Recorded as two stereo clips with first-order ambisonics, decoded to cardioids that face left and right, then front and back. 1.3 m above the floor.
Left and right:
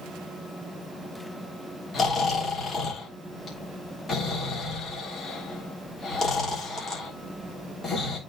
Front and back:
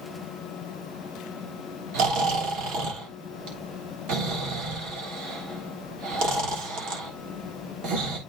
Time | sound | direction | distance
1.9 | snoring | 155° left | 3 m